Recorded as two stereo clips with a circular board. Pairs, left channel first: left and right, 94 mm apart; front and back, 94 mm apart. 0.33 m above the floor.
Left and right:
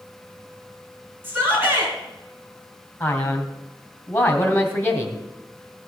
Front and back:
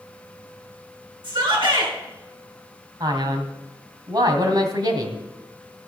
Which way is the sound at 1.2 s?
155° right.